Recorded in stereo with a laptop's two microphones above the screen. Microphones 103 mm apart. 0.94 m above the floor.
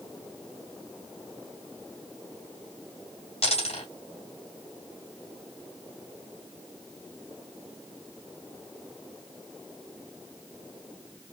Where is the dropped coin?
75° left (ahead or behind), 3 m.